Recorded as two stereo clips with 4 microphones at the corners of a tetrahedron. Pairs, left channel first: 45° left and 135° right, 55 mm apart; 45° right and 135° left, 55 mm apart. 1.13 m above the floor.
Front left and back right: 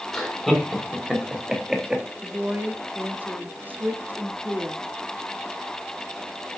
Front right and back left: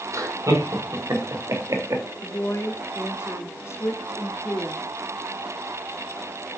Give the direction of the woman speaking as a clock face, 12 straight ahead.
3 o'clock.